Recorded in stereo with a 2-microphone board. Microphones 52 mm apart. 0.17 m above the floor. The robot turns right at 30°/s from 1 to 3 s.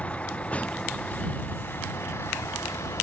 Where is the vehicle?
25° left (ahead or behind); by 3.0 s 80° left.